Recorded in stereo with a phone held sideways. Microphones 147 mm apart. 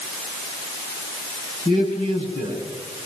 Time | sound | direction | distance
1.6 | a man speaking | 55° left (ahead or behind) | 9 m